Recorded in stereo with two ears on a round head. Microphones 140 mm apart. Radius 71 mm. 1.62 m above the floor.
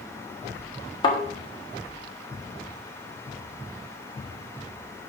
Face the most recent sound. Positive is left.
turn(degrees=30)  # may be behind; listen again after turning